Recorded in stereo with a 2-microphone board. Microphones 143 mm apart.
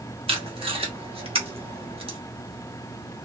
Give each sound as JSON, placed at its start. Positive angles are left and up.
{"t": 0.3, "sound": "tape being pulled", "side_deg": -40, "distance_m": 1.1}